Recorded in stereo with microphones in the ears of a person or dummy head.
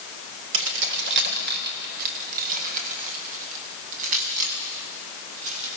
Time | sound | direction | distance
0.5 | keys jangling | 70° right (ahead or behind) | 2.5 m